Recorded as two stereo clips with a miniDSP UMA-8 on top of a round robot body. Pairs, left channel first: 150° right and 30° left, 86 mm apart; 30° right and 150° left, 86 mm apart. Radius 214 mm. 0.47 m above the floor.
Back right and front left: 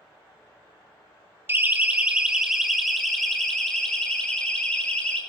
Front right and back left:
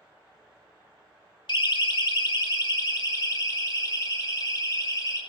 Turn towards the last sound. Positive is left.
turn(degrees=-75)